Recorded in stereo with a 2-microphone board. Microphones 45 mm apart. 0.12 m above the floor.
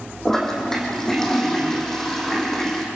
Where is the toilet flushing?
10° left (ahead or behind), 3 m.